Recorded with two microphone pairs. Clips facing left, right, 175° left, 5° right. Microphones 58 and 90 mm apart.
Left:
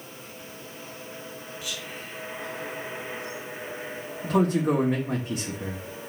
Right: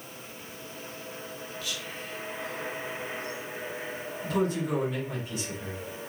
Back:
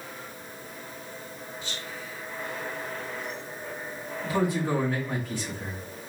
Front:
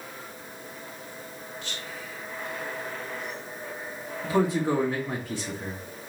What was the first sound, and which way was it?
Whispering, 10° left.